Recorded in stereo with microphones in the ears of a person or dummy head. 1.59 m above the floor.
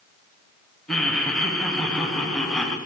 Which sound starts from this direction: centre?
Laughter, at 0.9 s.